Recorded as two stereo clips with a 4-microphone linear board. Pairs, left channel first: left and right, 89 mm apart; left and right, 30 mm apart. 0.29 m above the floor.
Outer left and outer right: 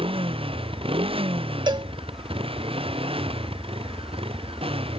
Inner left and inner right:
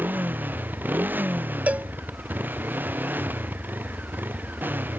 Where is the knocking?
I don't hear knocking.